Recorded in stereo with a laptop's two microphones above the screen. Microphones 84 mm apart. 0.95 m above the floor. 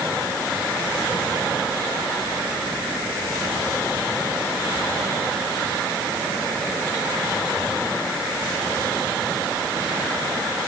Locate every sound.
Only background noise.